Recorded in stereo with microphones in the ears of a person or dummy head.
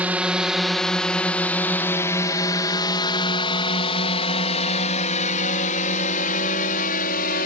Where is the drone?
10° right (ahead or behind); by 7.5 s 50° left (ahead or behind).